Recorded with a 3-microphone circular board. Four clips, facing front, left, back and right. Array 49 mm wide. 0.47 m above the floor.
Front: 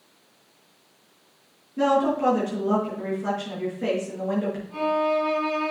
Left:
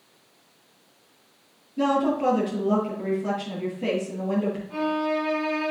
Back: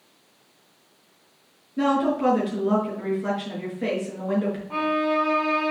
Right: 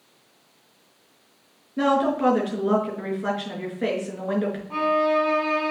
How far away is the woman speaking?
About 5.5 m.